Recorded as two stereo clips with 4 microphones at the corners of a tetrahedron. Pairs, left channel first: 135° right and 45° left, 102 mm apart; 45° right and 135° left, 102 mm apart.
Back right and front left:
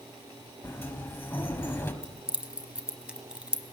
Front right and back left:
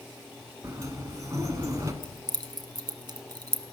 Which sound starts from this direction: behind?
A sliding door, at 0.6 s.